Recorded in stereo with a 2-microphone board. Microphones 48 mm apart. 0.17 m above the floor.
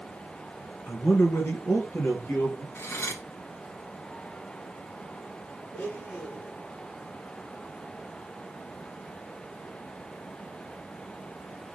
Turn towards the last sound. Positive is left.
turn(degrees=50)  # may be behind; listen again after turning